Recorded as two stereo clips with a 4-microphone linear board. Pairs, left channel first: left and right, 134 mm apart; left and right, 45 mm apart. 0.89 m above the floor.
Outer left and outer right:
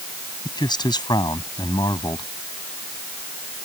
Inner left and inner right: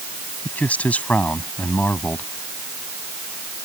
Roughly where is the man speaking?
Left.